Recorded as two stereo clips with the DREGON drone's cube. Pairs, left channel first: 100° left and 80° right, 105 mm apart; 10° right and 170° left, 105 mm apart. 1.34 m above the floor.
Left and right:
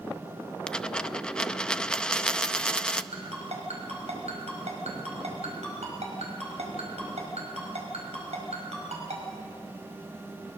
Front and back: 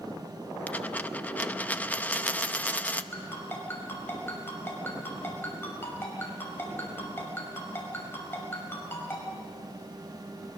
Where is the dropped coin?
30° left, 0.6 m.